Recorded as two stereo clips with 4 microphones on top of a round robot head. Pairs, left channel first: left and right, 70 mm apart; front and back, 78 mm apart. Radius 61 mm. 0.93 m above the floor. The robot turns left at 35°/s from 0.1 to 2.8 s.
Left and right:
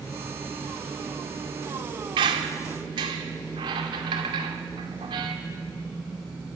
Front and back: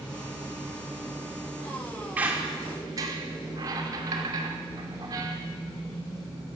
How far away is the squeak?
About 2 m.